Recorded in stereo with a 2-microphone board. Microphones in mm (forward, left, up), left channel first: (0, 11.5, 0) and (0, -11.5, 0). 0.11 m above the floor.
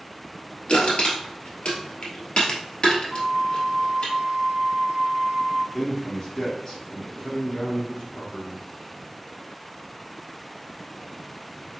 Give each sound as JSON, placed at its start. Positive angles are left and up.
{"t": 0.7, "sound": "crushing", "side_deg": 55, "distance_m": 1.7}
{"t": 3.1, "sound": "a flute", "side_deg": -35, "distance_m": 0.7}
{"t": 5.7, "sound": "a man speaking", "side_deg": 25, "distance_m": 1.8}